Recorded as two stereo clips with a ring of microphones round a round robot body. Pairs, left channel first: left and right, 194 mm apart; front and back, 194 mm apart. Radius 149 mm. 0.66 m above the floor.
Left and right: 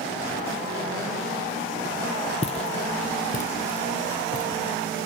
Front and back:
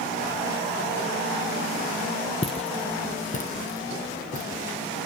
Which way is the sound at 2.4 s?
45° left.